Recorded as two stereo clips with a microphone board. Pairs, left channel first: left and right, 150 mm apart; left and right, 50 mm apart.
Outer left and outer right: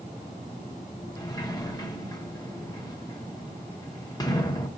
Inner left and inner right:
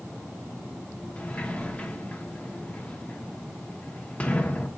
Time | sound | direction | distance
1.2 | a sliding door | 25° left (ahead or behind) | 0.8 m